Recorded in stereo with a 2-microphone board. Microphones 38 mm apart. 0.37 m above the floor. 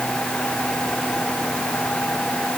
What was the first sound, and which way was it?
Only background noise.